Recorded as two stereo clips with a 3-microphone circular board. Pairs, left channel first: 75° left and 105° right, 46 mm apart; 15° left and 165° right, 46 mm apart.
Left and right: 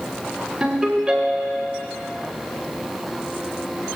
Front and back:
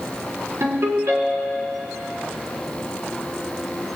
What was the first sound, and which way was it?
A ringtone, 170° left.